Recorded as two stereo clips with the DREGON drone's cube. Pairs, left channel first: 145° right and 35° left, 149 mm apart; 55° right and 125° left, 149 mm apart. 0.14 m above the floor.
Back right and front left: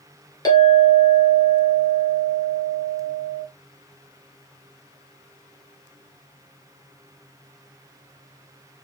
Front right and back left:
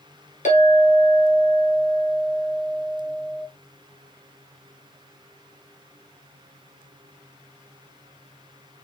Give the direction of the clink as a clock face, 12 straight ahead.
3 o'clock.